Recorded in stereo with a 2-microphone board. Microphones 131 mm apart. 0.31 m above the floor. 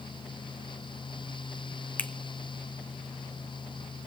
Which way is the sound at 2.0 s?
15° left (ahead or behind).